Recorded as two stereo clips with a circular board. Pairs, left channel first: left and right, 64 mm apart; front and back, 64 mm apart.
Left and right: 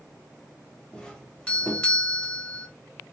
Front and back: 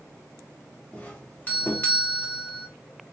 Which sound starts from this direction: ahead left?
A doorbell, at 0.9 s.